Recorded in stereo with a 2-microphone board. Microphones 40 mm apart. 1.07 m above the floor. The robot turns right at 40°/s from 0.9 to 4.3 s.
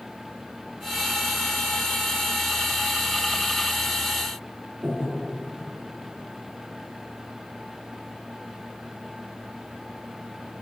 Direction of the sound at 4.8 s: 55° right (ahead or behind).